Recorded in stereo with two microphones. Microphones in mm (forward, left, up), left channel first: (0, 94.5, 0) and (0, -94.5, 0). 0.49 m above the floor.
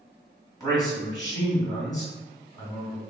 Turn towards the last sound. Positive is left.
turn(degrees=20)  # may be behind; listen again after turning